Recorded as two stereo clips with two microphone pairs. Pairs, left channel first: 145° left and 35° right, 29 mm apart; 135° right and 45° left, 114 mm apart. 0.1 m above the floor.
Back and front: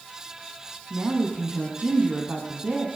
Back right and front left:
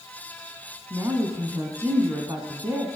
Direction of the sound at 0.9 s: 15° right.